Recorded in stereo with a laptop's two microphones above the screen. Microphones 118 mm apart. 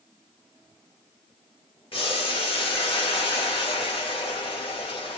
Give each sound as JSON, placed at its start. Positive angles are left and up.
{"t": 1.9, "sound": "boiling", "side_deg": 50, "distance_m": 1.1}